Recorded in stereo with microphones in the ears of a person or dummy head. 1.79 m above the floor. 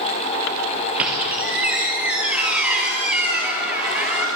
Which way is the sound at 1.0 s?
Centre (ahead or behind).